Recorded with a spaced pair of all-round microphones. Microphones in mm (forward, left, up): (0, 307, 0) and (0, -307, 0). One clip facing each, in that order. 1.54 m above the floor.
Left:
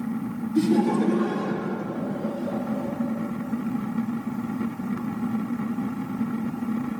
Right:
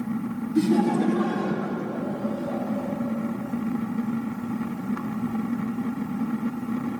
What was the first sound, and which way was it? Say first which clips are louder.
Laughter: even; centre (ahead or behind).